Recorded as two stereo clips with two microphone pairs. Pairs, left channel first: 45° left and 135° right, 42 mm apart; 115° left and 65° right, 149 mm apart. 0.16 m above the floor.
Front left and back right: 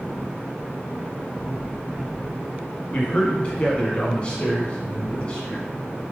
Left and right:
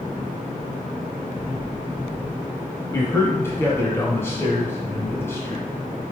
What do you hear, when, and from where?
2.9 s a man speaking: 55° left, 1.4 m